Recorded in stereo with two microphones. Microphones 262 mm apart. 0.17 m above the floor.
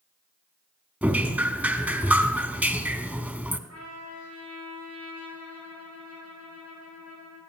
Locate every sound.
1.0 s dripping: 5° right (ahead or behind), 0.9 m
3.7 s a trumpet: 75° right (ahead or behind), 8.5 m